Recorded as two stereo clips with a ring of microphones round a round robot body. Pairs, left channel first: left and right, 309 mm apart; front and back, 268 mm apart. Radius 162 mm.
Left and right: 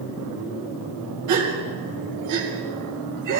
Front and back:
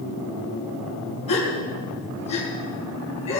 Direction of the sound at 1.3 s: 70° right.